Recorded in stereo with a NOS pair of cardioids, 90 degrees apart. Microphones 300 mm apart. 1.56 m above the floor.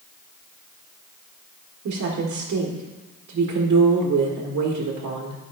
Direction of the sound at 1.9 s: 60° right.